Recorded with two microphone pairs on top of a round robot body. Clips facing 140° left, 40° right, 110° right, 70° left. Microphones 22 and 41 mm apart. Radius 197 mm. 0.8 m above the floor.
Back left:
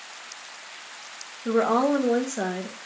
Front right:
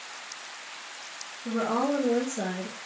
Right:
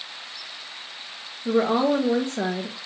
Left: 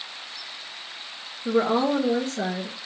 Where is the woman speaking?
155° left, 1.2 m; by 2.8 s 155° right, 1.5 m.